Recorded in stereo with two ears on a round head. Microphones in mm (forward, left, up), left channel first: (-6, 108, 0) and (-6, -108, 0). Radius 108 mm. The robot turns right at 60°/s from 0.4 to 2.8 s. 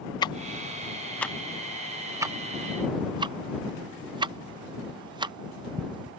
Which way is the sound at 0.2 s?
20° left (ahead or behind).